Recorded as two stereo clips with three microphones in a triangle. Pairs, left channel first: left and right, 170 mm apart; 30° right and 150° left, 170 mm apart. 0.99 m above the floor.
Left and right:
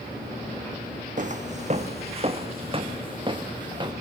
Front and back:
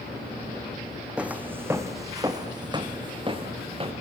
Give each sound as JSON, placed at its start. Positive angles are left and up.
{"t": 1.2, "sound": "footsteps", "azimuth_deg": -125, "distance_m": 2.5}